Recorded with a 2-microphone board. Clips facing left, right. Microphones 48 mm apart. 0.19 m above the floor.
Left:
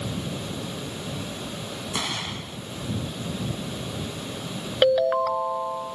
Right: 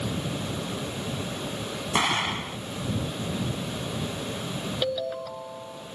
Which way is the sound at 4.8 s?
65° left (ahead or behind).